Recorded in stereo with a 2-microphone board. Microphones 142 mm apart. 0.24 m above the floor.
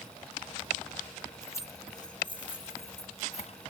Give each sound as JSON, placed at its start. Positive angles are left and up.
{"t": 1.4, "sound": "keys jangling", "side_deg": 15, "distance_m": 1.1}